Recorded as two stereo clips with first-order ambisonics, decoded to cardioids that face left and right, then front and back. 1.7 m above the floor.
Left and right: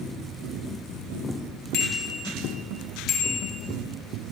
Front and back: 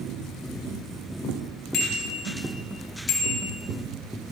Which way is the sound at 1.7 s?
45° left.